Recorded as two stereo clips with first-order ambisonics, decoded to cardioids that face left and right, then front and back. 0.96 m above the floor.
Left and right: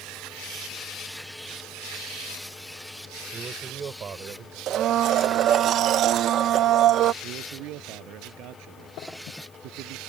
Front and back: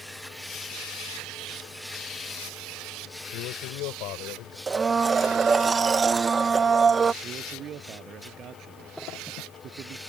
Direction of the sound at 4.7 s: 115° right.